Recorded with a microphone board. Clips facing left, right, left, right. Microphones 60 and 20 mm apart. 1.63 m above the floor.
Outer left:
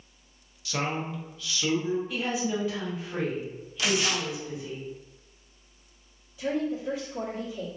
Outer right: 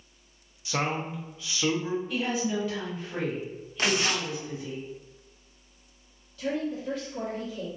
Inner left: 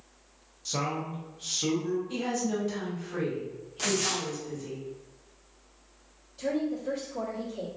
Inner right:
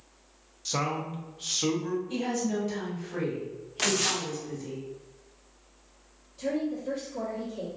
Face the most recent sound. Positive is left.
turn(degrees=15)  # may be behind; listen again after turning